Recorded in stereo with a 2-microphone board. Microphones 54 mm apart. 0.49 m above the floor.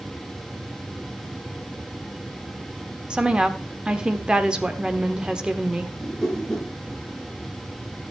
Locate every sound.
3.1 s a woman speaking: 15° right (ahead or behind), 1.1 m
6.0 s a whoosh: 10° left (ahead or behind), 3 m